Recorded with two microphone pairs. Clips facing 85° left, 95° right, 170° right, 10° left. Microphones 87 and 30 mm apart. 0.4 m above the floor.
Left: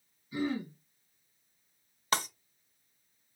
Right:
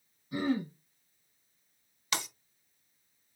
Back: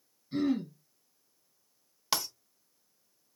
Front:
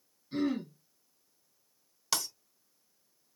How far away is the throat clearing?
About 2 m.